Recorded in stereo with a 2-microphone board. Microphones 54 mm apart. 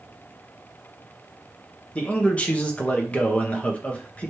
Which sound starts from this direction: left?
A man speaking, at 1.9 s.